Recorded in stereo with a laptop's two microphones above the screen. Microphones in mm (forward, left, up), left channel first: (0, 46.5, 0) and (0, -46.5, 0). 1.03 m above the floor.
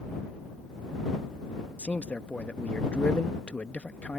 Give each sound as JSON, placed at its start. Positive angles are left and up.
{"t": 1.8, "sound": "a man speaking", "side_deg": 15}